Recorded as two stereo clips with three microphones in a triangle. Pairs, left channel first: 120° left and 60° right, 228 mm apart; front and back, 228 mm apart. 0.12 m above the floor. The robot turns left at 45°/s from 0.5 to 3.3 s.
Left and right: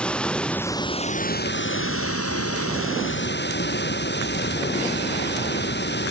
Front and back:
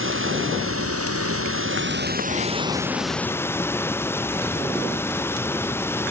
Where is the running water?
155° right; by 6.1 s 80° left.